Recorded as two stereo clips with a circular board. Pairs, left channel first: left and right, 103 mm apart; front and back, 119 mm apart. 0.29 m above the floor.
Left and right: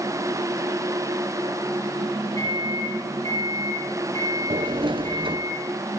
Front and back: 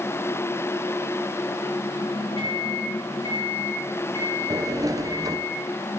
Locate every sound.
2.4 s a microwave: 145° left, 8.5 m
4.5 s a sliding door: 120° right, 0.9 m